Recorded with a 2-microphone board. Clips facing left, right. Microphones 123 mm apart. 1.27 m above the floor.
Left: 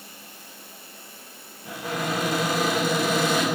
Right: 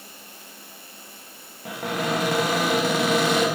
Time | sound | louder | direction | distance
1.6 | a cupboard door | right 2 dB | 60° right (ahead or behind) | 2 m